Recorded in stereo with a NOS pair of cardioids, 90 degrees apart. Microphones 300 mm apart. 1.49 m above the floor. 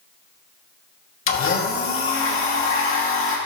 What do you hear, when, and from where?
1.3 s a blender: 45° left, 2.5 m